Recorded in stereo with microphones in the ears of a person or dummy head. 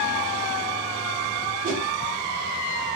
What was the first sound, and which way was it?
A whoosh, 45° right (ahead or behind).